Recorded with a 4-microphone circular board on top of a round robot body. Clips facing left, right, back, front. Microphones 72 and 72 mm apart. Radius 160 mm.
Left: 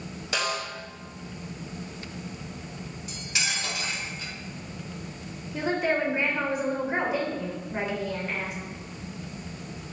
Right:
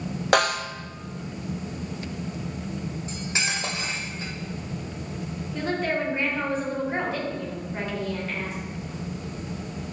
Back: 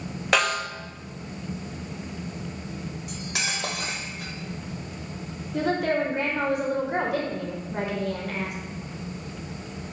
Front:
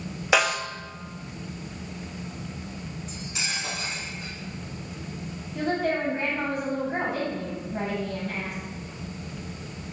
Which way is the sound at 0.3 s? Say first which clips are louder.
Right 8 dB, front 1 dB; 85° right.